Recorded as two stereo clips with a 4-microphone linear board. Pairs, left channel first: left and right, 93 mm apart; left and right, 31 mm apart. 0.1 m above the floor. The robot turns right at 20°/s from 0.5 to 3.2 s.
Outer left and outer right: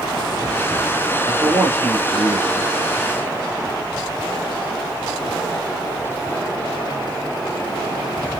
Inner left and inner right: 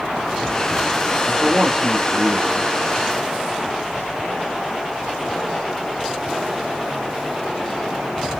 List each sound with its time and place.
1.2 s a man speaking: 15° right (ahead or behind), 1.5 m; by 2.7 s 35° right (ahead or behind), 1.5 m